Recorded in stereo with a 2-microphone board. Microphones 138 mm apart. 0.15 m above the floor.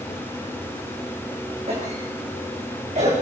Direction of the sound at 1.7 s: 50° right (ahead or behind).